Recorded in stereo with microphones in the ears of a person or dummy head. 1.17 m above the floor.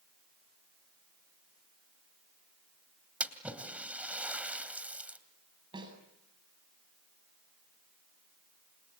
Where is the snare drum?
30° right (ahead or behind), 8 m.